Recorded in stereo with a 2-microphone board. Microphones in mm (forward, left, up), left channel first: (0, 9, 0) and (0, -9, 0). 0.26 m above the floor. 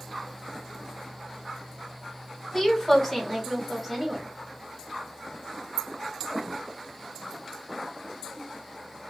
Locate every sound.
2.5 s a woman speaking: 15° left (ahead or behind), 1.5 m; by 4.3 s 15° right (ahead or behind), 1.2 m